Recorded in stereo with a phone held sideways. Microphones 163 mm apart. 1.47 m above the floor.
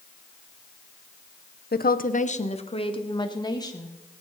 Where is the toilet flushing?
No toilet flushing in this recording.